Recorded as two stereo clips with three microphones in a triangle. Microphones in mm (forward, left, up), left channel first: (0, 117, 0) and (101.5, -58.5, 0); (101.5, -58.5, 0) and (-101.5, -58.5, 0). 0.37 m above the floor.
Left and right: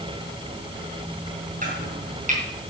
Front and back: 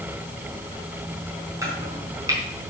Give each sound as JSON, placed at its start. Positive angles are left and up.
{"t": 1.6, "sound": "chopping", "azimuth_deg": -105, "distance_m": 4.5}